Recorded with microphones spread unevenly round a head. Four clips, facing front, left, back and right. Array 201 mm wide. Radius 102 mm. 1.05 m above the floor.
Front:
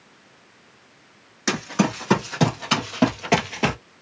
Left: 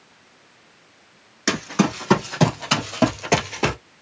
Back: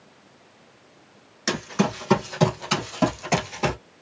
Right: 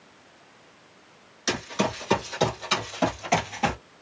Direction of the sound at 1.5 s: 55° left.